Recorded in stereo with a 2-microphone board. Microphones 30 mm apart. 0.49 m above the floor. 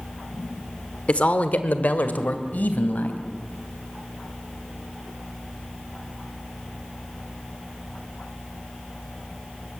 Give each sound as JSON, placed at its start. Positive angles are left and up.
{"t": 1.1, "sound": "a man speaking", "side_deg": 40, "distance_m": 1.3}